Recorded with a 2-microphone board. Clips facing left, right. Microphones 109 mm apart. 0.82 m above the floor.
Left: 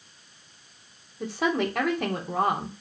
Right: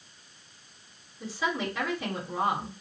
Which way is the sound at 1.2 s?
60° left (ahead or behind).